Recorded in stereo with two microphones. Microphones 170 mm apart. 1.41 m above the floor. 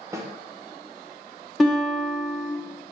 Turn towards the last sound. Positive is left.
turn(degrees=0)  # may be behind; listen again after turning